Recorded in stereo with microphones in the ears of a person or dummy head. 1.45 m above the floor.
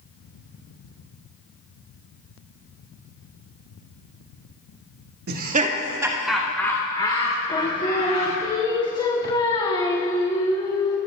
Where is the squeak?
No squeak in this recording.